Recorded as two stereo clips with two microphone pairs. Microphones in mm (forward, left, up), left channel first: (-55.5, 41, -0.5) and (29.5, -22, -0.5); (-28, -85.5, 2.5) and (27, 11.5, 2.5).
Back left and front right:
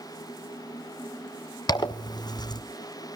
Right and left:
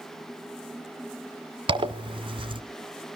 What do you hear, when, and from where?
1.7 s a zipper: 100° left, 1.2 m